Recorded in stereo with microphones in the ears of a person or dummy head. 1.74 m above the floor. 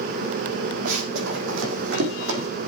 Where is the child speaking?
I don't hear a child speaking.